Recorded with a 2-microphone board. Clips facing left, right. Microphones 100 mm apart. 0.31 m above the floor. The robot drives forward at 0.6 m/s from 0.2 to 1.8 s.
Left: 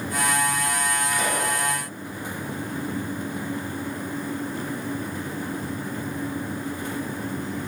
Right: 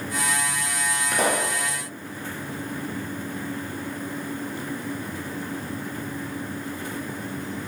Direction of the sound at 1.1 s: 60° right (ahead or behind).